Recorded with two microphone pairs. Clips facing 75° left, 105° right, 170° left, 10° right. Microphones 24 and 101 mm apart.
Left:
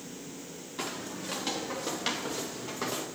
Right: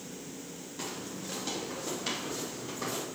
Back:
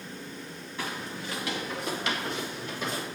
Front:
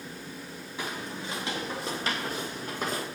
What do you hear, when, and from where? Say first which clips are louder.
0.8 s footsteps: left 3 dB, even; 65° left, 2.0 m; by 3.0 s 30° left, 3 m